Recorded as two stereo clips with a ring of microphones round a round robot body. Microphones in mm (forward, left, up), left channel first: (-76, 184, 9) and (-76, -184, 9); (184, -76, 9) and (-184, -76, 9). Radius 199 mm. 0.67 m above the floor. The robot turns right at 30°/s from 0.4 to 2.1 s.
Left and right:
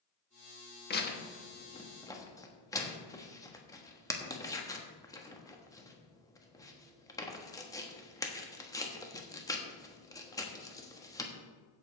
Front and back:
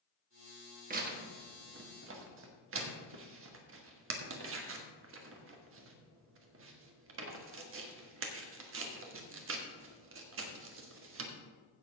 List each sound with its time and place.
0.9 s tearing paper: 130° left, 1.3 m; by 11.3 s 165° left, 1.3 m